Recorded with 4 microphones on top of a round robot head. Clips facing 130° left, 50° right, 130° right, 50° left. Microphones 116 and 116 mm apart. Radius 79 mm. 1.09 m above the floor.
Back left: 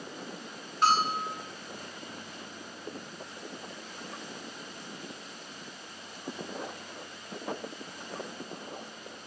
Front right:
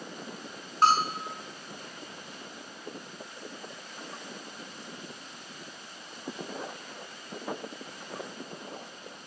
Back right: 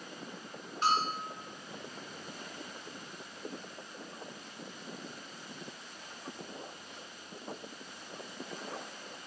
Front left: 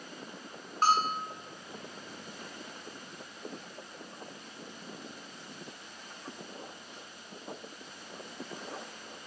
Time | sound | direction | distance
0.8 | a bell | straight ahead | 0.5 m